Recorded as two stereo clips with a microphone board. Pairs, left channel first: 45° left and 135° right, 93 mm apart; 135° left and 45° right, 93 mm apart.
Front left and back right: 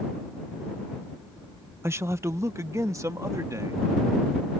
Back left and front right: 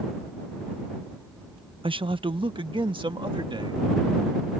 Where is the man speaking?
70° right; by 3.9 s 80° right.